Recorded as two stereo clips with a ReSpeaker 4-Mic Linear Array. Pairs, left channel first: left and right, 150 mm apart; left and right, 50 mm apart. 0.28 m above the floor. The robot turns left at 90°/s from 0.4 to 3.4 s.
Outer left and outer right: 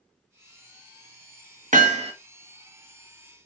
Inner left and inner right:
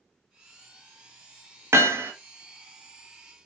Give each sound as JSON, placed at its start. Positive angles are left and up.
{"t": 1.7, "sound": "hammering", "azimuth_deg": -90, "distance_m": 0.7}